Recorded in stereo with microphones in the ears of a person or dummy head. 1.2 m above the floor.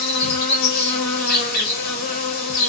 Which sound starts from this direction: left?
An insect, at 0.0 s.